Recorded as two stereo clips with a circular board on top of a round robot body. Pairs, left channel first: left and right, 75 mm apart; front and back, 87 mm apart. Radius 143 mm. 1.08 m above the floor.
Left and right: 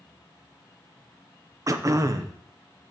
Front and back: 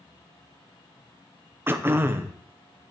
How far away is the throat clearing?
About 0.8 m.